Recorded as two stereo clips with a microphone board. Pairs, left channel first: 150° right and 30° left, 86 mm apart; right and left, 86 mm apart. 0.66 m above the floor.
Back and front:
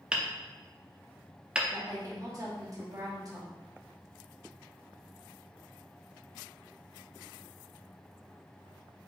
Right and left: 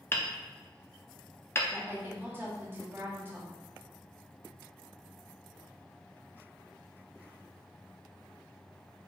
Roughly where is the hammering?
Ahead right.